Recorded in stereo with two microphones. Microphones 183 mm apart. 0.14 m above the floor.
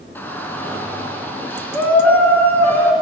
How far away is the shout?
About 1.2 m.